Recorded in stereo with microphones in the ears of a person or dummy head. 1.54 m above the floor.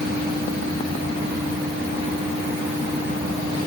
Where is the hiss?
No hiss in this recording.